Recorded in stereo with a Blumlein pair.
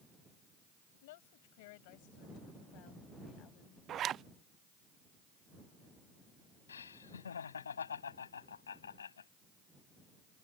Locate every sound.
1.0 s a woman speaking: 55° left; by 3.8 s 35° left
3.9 s a zipper: 30° right
6.7 s laughter: 70° left